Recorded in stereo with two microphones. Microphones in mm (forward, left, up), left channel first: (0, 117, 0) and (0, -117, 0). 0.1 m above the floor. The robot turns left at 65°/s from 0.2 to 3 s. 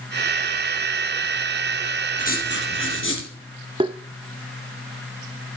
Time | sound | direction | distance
2.2 | writing | 140° left | 3 m
3.8 | tapping | 20° right (ahead or behind) | 0.6 m